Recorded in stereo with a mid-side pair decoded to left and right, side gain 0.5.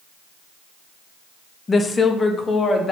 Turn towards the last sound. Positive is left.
turn(degrees=30)